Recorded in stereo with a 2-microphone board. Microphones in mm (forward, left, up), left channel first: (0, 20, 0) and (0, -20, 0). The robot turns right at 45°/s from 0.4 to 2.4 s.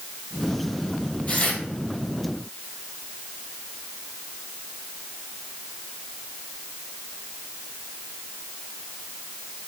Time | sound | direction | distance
1.3 | tearing paper | 40° left (ahead or behind) | 2.5 m